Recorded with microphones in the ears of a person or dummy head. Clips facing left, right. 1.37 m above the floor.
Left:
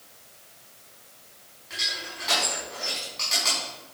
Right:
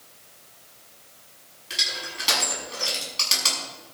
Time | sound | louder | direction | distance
1.7 | crushing | right 2 dB | 45° right (ahead or behind) | 6.5 m